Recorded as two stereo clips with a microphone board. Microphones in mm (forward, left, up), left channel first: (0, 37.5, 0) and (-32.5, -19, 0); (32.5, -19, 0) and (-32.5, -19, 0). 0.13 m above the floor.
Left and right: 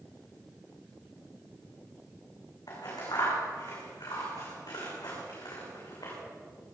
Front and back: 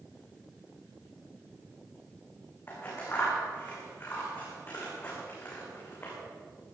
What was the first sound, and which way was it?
Scissors, 55° left.